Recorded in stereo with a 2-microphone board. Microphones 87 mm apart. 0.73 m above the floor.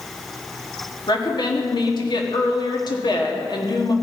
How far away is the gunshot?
No gunshot in this recording.